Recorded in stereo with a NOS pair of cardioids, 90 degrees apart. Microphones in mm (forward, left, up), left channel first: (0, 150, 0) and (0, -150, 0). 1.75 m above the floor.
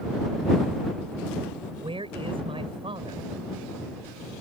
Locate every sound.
1.8 s a man speaking: 15° right